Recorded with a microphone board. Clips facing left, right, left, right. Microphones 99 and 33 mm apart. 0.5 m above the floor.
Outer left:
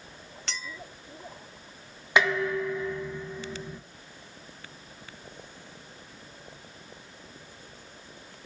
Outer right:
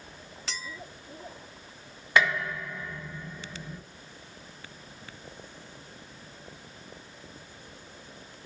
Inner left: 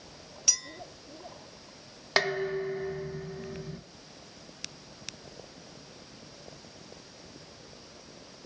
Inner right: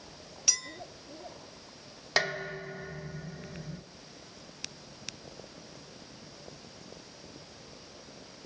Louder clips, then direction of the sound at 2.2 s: Outer left 2 dB, inner left 3 dB; 15° left (ahead or behind).